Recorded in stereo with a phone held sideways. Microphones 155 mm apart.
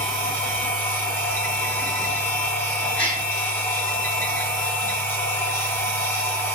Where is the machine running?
15° left (ahead or behind), 1.6 m.